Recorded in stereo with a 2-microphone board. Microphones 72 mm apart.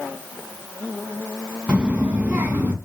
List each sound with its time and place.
1.7 s a child speaking: 15° right (ahead or behind), 2.5 m; by 2.8 s 25° right (ahead or behind), 3 m